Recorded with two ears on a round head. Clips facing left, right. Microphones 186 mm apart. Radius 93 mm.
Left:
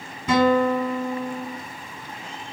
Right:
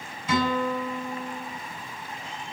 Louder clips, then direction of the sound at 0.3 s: Left 7 dB; 50° left (ahead or behind).